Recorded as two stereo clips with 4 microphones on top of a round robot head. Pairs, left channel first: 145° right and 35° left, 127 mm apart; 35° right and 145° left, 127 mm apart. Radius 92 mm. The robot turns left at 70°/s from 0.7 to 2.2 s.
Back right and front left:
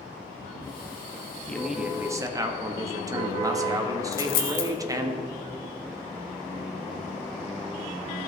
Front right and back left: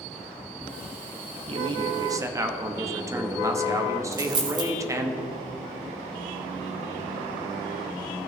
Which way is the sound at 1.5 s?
140° left.